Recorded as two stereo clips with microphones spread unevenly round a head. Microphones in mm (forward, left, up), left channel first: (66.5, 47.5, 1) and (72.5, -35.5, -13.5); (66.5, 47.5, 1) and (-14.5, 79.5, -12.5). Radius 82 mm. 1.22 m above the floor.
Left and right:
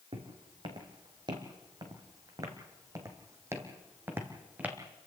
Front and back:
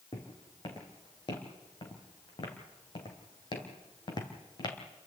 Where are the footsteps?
65° right, 3 m; by 4.8 s 10° right, 2.5 m.